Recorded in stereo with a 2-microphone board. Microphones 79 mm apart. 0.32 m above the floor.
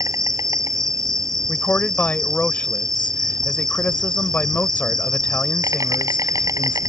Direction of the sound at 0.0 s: 50° right (ahead or behind).